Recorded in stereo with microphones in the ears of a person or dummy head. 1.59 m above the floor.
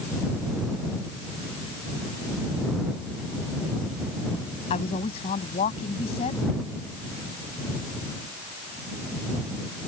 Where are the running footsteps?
No running footsteps in this recording.